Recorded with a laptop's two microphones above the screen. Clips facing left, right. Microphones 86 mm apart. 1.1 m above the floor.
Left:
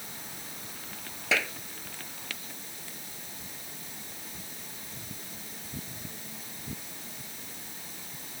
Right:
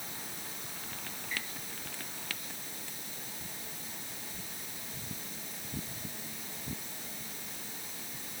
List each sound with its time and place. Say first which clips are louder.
1.3 s a clap: left 13 dB; 85° left